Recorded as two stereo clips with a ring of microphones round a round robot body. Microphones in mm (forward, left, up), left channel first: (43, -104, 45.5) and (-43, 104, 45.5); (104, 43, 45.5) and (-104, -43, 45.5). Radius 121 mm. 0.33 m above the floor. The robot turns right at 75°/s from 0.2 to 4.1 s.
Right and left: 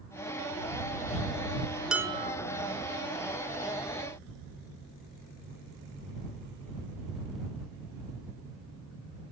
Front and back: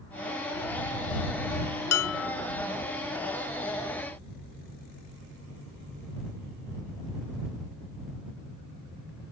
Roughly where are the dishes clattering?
Ahead left.